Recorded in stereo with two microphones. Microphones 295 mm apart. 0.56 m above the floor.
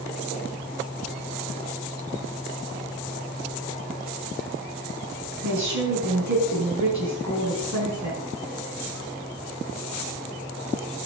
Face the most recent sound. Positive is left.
turn(degrees=-70)  # may be behind; listen again after turning